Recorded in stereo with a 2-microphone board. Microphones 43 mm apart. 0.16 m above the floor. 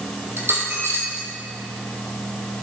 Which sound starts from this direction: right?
A dropped coin, at 0.4 s.